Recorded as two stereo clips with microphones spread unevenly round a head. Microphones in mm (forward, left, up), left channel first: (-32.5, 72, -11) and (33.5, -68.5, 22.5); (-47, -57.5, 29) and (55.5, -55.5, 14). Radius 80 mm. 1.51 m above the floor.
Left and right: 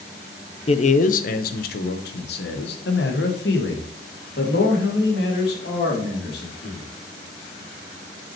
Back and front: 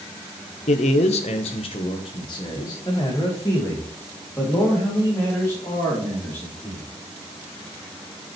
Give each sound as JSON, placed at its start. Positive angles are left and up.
{"t": 0.7, "sound": "a man speaking", "azimuth_deg": 160, "distance_m": 0.6}